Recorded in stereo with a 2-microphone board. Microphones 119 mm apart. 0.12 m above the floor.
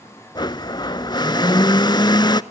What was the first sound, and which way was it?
A blender, 35° left (ahead or behind).